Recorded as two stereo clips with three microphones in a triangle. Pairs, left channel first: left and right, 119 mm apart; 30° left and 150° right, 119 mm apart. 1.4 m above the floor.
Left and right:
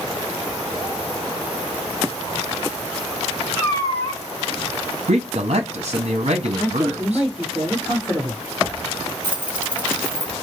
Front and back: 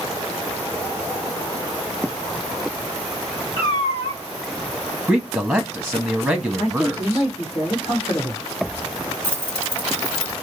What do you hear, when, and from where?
3.6 s a cat meowing: 40° left, 1.4 m
5.1 s a man speaking: 60° right, 0.6 m
6.6 s a man speaking: 15° left, 1.7 m
9.2 s keys jangling: 10° right, 1.9 m